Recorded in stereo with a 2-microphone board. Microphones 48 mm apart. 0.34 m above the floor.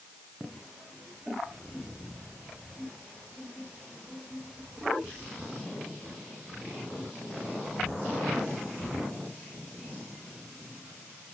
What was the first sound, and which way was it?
Only background noise.